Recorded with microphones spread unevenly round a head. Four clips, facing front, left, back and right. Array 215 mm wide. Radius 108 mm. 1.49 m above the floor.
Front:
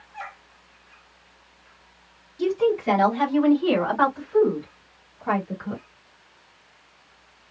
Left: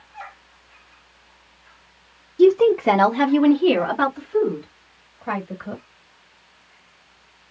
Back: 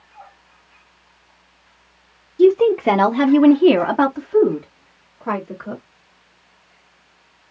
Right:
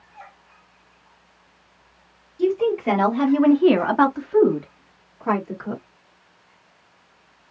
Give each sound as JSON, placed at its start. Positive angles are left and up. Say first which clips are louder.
{"t": 2.4, "sound": "a woman speaking", "louder": "left 6 dB, back 9 dB", "azimuth_deg": 135, "distance_m": 0.9}